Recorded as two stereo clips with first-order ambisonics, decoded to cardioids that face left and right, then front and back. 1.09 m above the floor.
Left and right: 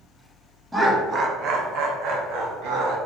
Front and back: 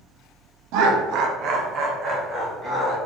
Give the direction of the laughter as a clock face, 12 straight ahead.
6 o'clock.